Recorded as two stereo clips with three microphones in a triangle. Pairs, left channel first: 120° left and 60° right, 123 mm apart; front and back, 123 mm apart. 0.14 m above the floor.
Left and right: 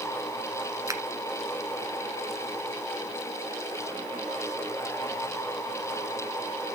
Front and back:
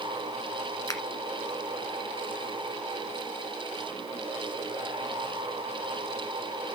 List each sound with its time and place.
0.9 s a finger snap: 25° right, 1.4 m